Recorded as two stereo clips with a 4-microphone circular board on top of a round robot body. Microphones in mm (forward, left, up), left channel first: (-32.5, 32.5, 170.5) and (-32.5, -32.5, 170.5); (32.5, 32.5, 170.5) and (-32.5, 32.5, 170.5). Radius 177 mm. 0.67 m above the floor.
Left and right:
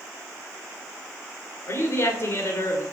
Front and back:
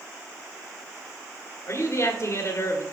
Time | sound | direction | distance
1.7 | a woman speaking | 45° left | 1.5 m